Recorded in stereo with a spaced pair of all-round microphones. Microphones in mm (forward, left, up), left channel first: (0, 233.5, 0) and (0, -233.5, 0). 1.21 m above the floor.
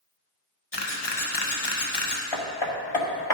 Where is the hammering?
75° left (ahead or behind), 1.2 m.